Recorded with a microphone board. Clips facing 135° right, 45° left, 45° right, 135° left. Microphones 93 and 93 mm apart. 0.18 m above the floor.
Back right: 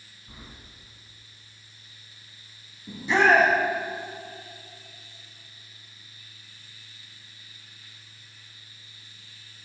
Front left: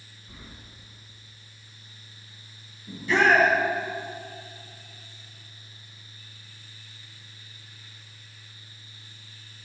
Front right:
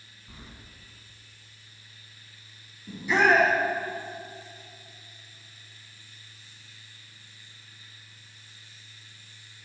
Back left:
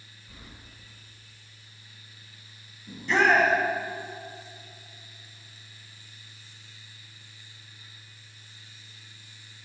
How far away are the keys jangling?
About 1.1 m.